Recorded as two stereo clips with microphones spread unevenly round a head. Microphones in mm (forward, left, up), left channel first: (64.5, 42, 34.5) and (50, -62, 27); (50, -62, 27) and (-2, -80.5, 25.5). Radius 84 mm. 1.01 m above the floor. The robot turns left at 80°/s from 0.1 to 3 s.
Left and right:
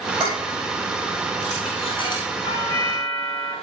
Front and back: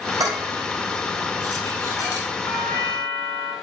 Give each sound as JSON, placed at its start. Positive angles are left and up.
{"t": 0.2, "sound": "dishes clattering", "azimuth_deg": -165, "distance_m": 6.0}
{"t": 2.4, "sound": "a doorbell", "azimuth_deg": 45, "distance_m": 3.5}